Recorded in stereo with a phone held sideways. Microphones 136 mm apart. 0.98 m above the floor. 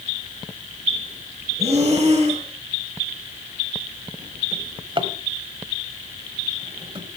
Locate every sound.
1.6 s breathing: 50° right (ahead or behind), 7 m
4.5 s a drawer: 40° right (ahead or behind), 1.4 m